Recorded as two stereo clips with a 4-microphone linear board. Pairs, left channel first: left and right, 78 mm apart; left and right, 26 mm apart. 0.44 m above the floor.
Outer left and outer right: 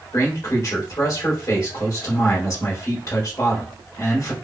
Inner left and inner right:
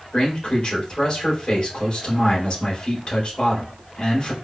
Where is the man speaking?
45° left (ahead or behind), 2.0 m.